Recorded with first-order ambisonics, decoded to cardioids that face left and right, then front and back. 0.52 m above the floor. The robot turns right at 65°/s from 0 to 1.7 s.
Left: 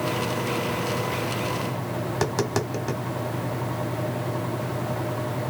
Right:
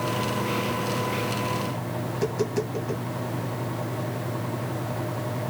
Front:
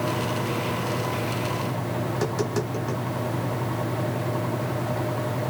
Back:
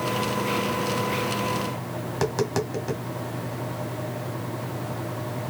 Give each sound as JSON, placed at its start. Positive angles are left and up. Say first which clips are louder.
{"t": 2.1, "sound": "tapping", "louder": "left 1 dB, back 3 dB", "azimuth_deg": 120, "distance_m": 1.1}